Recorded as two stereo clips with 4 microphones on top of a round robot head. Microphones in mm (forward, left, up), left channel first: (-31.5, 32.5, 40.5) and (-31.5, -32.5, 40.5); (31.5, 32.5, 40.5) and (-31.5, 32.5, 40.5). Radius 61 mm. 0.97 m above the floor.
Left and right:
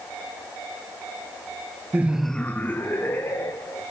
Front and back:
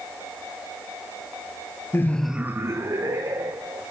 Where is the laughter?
35° right, 0.7 m; by 3.8 s 145° left, 2.5 m.